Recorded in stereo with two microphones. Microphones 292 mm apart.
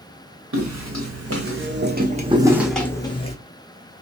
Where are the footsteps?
70° right (ahead or behind), 1.2 m; by 3.4 s 25° left (ahead or behind), 0.9 m.